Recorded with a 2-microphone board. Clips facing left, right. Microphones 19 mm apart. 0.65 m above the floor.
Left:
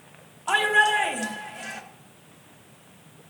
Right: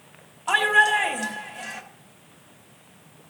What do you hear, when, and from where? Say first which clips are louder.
0.5 s a shout: right 2 dB; 5° right (ahead or behind), 1.4 m